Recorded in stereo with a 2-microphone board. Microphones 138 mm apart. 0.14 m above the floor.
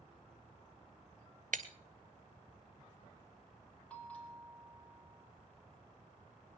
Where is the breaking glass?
70° right (ahead or behind), 1.0 m.